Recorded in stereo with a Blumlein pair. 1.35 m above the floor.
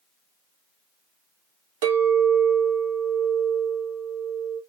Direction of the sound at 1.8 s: 55° right.